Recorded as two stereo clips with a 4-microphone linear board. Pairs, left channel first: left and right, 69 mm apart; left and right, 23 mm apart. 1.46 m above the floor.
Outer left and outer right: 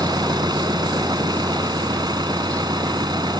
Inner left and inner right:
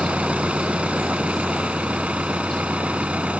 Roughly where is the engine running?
Right.